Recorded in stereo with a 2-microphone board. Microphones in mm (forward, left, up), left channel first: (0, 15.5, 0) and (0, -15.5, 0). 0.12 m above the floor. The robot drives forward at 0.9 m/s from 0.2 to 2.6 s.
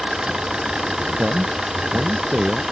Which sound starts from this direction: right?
A man speaking, at 1.2 s.